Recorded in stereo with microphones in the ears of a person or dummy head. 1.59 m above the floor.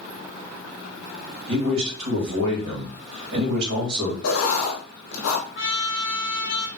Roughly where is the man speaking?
Right.